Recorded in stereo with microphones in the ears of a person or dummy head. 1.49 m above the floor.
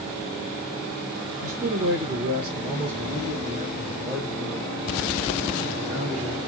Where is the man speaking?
45° right (ahead or behind), 0.8 m; by 6.4 s 20° right (ahead or behind), 5 m.